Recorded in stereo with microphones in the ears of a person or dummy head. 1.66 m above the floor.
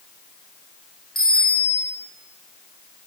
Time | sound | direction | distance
1.1 | a bicycle bell | centre (ahead or behind) | 5.5 m